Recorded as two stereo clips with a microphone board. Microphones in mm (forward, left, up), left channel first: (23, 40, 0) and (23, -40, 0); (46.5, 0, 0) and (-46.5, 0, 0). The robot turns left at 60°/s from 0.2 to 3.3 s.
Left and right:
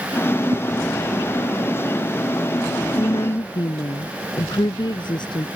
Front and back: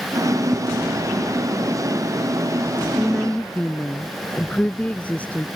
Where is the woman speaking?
105° left; by 5.5 s 75° left.